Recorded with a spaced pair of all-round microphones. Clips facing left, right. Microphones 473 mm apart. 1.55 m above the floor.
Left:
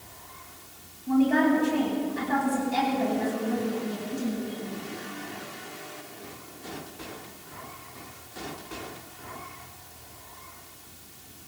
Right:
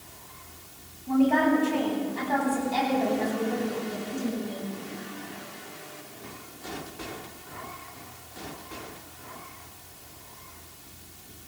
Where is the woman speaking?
35° left (ahead or behind), 10 m; by 4.7 s 25° left (ahead or behind), 11.5 m.